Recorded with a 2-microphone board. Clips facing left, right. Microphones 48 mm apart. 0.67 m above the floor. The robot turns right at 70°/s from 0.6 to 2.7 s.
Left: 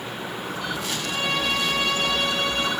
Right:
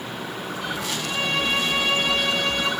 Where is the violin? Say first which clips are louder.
Right 1 dB; 85° right, 4 m; by 2.7 s 35° left, 4 m.